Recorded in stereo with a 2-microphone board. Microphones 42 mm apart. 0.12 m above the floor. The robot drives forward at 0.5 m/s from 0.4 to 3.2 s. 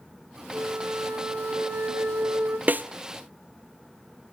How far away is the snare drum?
About 0.6 m.